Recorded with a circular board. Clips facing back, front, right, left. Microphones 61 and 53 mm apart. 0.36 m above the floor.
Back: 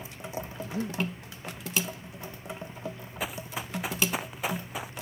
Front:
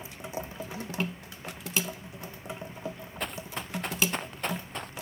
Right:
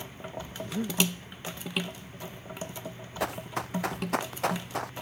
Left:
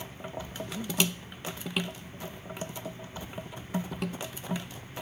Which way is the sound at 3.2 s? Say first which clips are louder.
Back 1 dB, right 9 dB; 95° right.